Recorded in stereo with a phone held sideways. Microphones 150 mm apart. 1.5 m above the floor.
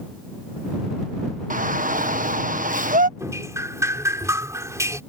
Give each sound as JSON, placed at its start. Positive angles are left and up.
{"t": 1.5, "sound": "a shout", "side_deg": -60}
{"t": 3.2, "sound": "dripping", "side_deg": -20}